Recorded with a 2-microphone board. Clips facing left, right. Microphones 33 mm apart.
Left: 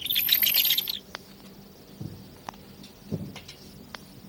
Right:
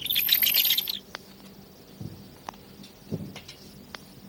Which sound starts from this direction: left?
Footsteps, at 2.0 s.